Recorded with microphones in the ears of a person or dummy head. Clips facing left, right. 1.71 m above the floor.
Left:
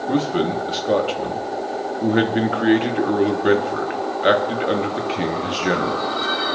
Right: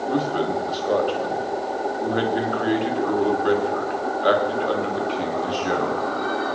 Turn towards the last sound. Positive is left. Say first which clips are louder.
# left 3 dB
turn(degrees=25)  # may be behind; listen again after turning